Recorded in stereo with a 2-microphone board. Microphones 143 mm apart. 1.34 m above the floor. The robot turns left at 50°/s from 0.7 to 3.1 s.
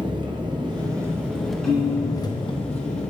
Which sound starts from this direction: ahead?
A piano, at 1.6 s.